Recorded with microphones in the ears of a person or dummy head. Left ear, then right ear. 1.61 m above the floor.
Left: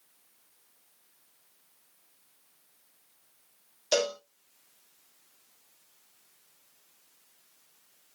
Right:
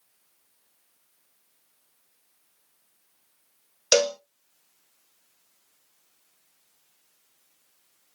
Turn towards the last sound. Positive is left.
turn(degrees=-75)  # may be behind; listen again after turning